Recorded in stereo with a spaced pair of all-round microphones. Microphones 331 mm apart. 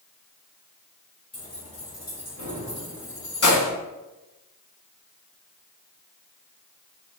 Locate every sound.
1.3 s keys jangling: 45° left (ahead or behind), 1.9 m; by 3.7 s 75° left (ahead or behind), 0.7 m